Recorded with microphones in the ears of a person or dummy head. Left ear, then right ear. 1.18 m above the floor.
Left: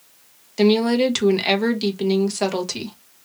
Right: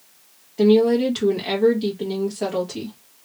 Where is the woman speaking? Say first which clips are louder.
Right 1 dB; 55° left (ahead or behind), 1.4 m.